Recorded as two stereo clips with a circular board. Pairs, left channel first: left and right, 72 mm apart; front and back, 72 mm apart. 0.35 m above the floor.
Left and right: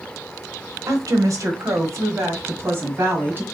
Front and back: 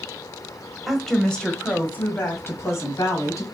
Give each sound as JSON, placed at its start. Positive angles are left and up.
{"t": 0.9, "sound": "a woman speaking", "azimuth_deg": -95, "distance_m": 1.3}